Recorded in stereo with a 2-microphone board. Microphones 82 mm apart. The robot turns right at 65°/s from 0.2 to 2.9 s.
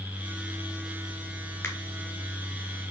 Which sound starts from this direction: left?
A finger snap, at 1.6 s.